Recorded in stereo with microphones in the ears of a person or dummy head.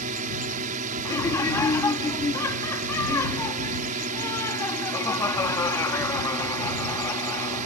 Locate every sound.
0.0 s a drone: 40° right (ahead or behind)
1.1 s laughter: 20° left (ahead or behind)